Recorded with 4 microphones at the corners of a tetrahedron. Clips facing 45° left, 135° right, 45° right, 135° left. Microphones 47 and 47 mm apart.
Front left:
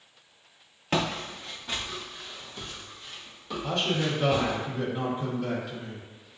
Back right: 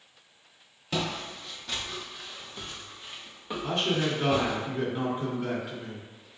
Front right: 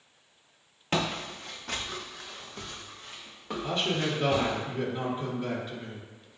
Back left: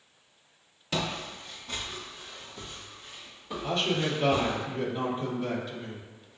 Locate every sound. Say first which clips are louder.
0.9 s footsteps: front left 3 dB, front right 2 dB; 5° left, 0.7 m; by 4.6 s 80° right, 2.0 m
3.6 s a man speaking: even, back left 1 dB; 85° right, 1.8 m